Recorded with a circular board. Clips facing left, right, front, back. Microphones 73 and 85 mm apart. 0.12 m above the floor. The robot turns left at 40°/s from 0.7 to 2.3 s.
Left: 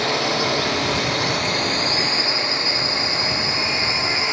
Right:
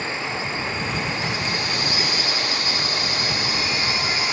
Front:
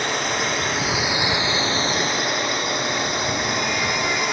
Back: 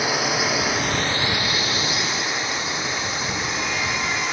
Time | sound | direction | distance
0.0 | a drone | 95° left | ?